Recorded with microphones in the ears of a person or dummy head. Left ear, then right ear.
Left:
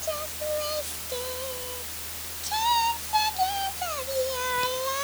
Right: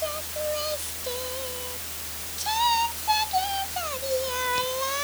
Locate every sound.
Only background noise.